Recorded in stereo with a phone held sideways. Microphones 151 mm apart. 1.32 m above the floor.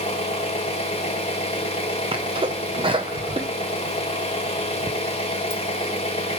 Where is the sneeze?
35° right (ahead or behind), 0.5 m.